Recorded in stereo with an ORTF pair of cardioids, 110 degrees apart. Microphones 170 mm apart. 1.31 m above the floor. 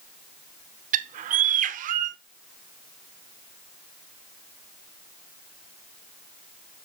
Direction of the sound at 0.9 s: 50° right.